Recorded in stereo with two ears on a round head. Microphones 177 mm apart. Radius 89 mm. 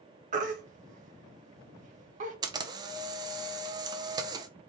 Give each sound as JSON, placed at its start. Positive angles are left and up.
{"t": 0.3, "sound": "a baby crying", "side_deg": -40, "distance_m": 0.8}
{"t": 2.4, "sound": "a camera shutter", "side_deg": -20, "distance_m": 0.6}